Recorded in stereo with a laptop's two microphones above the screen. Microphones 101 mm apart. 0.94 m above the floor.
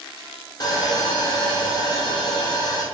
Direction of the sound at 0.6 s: 45° left (ahead or behind).